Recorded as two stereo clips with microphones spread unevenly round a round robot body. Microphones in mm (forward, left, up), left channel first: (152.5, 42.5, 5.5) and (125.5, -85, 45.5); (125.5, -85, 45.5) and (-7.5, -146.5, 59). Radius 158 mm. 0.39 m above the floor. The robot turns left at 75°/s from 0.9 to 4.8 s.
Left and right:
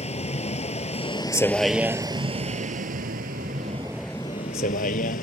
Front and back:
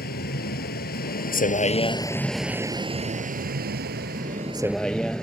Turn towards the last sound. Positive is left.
turn(degrees=115)